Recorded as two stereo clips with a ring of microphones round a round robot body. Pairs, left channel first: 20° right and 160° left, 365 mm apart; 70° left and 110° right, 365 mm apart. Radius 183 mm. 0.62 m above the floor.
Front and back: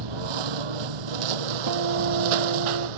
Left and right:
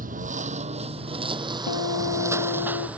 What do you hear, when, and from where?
0.0 s a lawn mower: straight behind; by 3.0 s 160° left
1.7 s a guitar: 115° left